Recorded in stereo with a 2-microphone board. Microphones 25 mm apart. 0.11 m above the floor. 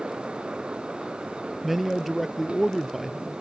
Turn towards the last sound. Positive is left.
turn(degrees=-5)  # may be behind; listen again after turning